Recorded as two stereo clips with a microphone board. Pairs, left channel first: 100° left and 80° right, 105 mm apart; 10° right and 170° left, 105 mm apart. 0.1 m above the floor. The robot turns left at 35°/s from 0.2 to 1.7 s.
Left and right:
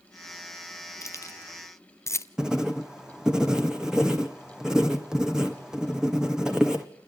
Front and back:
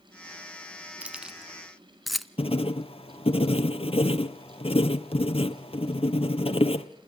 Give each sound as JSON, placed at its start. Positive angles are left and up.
{"t": 1.0, "sound": "keys jangling", "azimuth_deg": 105, "distance_m": 0.8}
{"t": 2.4, "sound": "writing", "azimuth_deg": 5, "distance_m": 1.6}